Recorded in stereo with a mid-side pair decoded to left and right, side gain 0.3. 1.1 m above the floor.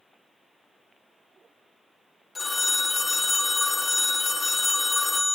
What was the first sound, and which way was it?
A phone ringing, 45° left.